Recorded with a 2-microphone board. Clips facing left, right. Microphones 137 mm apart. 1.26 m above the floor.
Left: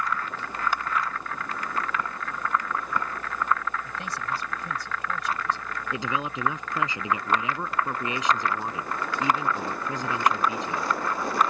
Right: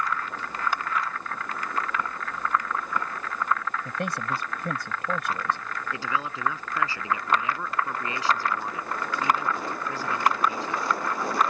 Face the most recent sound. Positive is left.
turn(degrees=20)  # may be behind; listen again after turning